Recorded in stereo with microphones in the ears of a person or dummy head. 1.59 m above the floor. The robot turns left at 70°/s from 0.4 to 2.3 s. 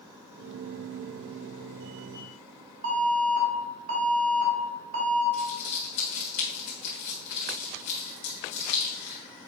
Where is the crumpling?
45° left (ahead or behind), 1.7 m.